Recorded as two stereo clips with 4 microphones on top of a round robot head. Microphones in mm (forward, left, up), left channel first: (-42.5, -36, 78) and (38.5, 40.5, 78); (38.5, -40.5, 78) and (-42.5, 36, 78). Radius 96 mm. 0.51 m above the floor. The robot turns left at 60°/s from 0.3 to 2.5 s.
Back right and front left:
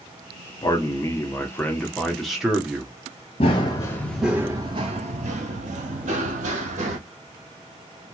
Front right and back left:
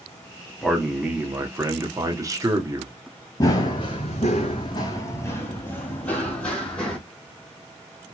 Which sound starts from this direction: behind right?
A man speaking, at 0.6 s.